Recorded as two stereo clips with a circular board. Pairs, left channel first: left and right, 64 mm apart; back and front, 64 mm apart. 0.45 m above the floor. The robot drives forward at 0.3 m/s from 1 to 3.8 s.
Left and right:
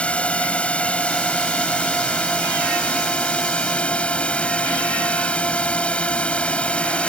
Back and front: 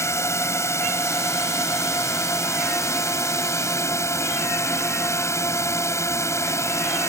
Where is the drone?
155° left; by 7.1 s 160° left.